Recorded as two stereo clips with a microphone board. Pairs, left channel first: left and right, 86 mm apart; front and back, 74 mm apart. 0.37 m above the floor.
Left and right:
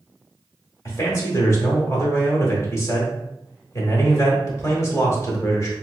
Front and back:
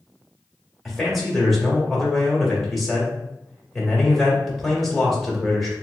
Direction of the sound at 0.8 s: 90° left.